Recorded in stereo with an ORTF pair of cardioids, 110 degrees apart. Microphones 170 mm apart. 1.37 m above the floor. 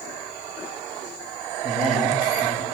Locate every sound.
1.6 s a man speaking: straight ahead, 8 m